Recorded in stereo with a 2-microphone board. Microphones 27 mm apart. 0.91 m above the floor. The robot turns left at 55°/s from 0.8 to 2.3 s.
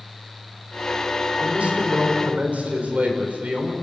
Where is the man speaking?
55° right, 3.5 m; by 3.7 s 105° right, 3.5 m.